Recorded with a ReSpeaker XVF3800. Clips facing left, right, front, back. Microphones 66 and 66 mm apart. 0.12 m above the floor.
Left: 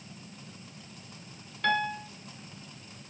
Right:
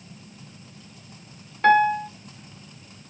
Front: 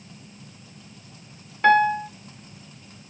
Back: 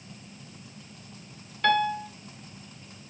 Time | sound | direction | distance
1.6 | a piano | 50° right | 0.5 m